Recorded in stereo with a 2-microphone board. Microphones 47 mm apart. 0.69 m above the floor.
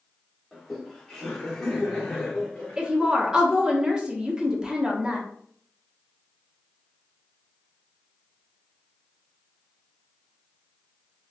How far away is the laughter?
About 1.9 m.